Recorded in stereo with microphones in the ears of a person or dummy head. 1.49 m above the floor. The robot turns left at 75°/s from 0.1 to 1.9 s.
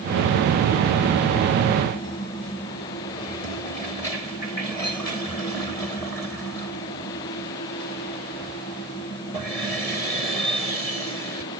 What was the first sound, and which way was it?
Only background noise.